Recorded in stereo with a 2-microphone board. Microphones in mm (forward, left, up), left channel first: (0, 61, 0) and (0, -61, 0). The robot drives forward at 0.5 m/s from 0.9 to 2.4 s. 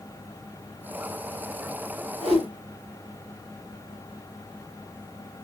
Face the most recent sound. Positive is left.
turn(degrees=60)  # may be behind; listen again after turning